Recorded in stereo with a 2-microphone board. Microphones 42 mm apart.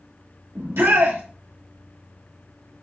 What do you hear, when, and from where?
0.6 s a shout: 80° right, 1.5 m